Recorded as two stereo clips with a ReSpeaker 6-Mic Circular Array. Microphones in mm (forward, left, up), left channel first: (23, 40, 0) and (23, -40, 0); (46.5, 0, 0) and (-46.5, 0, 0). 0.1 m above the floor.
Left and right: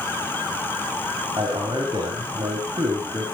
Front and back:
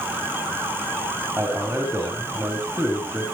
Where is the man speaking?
120° right, 6 m.